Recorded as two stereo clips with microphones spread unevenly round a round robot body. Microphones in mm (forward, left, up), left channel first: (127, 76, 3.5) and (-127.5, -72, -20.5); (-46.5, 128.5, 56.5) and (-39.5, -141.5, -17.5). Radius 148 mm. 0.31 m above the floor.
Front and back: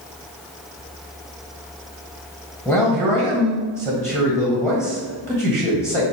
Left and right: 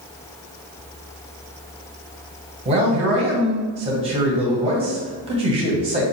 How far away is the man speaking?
About 1.6 m.